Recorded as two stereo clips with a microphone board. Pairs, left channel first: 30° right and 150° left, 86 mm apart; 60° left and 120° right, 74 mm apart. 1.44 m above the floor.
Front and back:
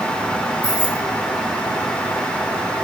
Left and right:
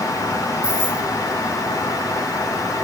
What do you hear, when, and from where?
0.6 s keys jangling: 40° right, 2.5 m